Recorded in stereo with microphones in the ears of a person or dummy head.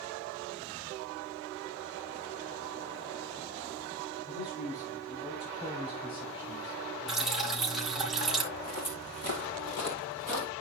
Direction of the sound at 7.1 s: 5° right (ahead or behind).